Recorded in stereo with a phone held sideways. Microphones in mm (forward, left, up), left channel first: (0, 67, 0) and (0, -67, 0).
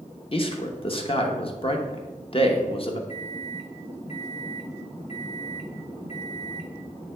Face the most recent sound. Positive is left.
turn(degrees=55)  # may be behind; listen again after turning